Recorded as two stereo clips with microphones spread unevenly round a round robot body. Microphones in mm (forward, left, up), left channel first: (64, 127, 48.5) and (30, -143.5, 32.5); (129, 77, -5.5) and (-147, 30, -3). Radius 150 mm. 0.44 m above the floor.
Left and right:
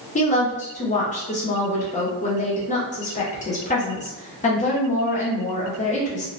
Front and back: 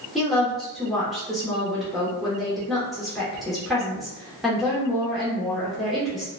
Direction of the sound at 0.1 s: 100° left.